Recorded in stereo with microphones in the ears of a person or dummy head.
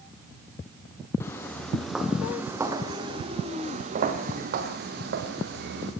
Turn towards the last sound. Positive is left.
turn(degrees=-65)  # may be behind; listen again after turning